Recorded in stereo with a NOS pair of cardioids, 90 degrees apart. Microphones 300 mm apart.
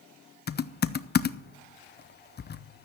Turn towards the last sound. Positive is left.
turn(degrees=35)